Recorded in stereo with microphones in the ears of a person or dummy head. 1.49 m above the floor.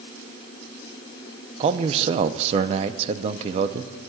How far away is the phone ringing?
No phone ringing in this recording.